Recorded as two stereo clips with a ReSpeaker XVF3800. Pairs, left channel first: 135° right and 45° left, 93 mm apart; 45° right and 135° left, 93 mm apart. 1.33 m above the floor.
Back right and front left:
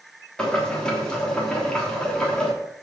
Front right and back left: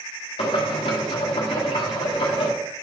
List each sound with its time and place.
0.4 s boiling: 55° right, 3 m